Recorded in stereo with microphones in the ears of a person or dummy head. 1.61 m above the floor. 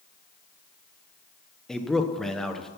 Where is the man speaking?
5° left (ahead or behind), 1.2 m.